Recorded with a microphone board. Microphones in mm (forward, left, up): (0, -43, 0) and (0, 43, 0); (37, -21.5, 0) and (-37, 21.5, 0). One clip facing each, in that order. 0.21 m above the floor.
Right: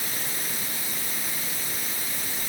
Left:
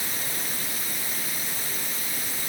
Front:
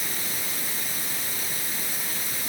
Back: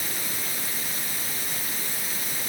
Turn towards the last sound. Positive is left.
No sound to turn to.